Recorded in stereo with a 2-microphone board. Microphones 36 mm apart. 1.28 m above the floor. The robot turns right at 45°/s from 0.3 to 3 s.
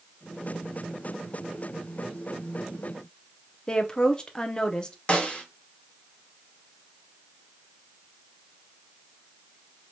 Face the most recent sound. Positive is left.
turn(degrees=35)  # may be behind; listen again after turning